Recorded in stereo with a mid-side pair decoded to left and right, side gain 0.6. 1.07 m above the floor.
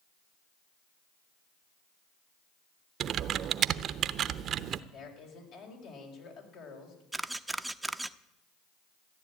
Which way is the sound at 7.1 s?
5° right.